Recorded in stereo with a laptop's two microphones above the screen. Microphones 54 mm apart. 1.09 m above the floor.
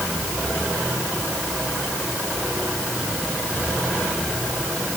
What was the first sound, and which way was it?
Only background noise.